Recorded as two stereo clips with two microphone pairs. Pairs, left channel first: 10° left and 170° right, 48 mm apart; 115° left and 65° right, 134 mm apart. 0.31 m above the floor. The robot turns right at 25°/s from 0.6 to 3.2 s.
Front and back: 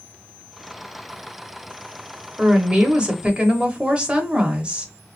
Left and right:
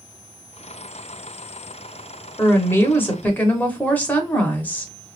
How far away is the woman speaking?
About 0.9 m.